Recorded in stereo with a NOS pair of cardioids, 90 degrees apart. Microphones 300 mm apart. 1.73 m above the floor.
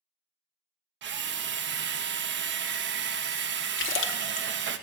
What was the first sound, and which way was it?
A drill, 40° right.